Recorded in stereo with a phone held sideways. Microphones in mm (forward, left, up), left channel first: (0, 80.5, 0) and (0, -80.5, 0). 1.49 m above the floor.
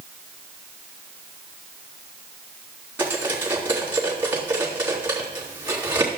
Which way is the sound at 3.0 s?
10° right (ahead or behind).